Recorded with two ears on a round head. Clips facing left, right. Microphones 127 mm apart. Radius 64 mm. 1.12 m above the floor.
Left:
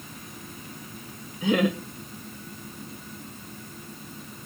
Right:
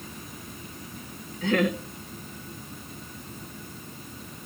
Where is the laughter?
10° left (ahead or behind), 1.6 m.